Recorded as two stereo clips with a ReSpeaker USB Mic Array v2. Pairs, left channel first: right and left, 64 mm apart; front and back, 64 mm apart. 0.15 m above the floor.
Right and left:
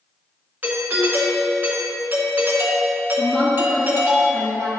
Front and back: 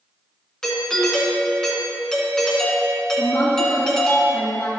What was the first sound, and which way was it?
A doorbell, 75° left.